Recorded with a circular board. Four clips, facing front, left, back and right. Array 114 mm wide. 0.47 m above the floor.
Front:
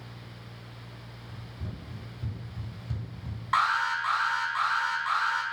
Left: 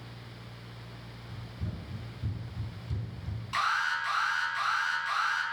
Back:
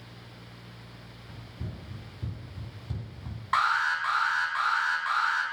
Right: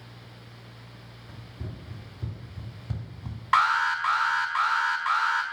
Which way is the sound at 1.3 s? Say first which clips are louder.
Even, back 1 dB; 110° right.